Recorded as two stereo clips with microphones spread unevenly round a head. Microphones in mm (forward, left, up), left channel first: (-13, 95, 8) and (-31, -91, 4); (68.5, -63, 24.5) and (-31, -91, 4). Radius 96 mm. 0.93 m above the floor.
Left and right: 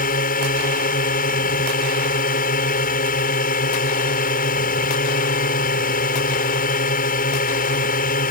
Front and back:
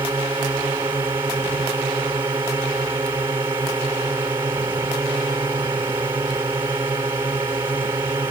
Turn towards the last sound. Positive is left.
turn(degrees=125)